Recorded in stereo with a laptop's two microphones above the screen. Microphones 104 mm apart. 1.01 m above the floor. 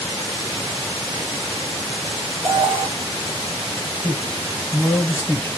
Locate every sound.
2.4 s an alarm: 40° right (ahead or behind), 0.9 m
4.0 s a man speaking: 25° left (ahead or behind), 0.8 m